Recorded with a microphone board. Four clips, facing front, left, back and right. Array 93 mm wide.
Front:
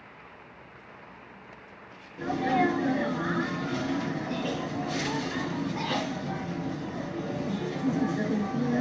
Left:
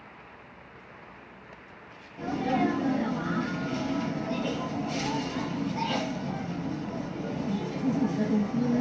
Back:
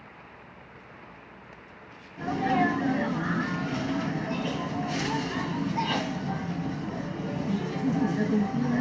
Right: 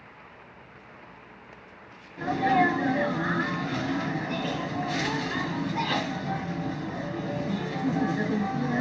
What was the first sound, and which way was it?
A sneeze, 100° right.